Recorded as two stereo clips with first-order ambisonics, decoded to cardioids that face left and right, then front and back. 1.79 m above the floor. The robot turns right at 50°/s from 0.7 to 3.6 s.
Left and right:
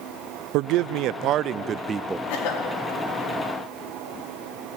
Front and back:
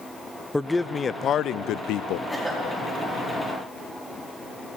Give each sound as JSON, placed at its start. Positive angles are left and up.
{"t": 0.5, "sound": "a man speaking", "azimuth_deg": -85, "distance_m": 0.5}
{"t": 2.3, "sound": "a cough", "azimuth_deg": 85, "distance_m": 4.5}